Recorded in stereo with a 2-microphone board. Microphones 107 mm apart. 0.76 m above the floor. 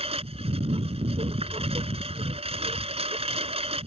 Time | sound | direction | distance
0.0 | a lawn mower | 80° right | ?